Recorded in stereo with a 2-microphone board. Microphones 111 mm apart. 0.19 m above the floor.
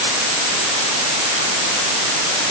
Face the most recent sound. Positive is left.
No sound to turn to.